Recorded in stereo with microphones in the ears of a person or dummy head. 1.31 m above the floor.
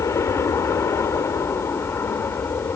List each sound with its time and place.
0.0 s an aircraft: 20° left (ahead or behind); by 2.8 s 15° left (ahead or behind)